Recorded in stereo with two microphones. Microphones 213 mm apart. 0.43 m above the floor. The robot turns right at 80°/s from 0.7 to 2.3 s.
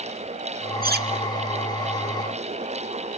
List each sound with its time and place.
0.8 s cutlery clinking: 40° right (ahead or behind), 0.9 m; by 1.1 s 55° right (ahead or behind), 0.9 m